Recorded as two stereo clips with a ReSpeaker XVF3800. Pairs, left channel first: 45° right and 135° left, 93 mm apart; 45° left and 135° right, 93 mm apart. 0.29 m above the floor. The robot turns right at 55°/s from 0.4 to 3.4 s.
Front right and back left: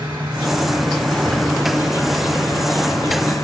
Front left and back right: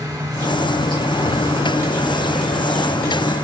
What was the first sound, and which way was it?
An insect, 165° right.